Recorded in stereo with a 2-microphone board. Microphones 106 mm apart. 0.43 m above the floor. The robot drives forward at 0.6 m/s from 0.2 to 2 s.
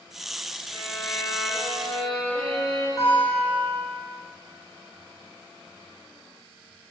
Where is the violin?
10° left (ahead or behind), 2.5 m.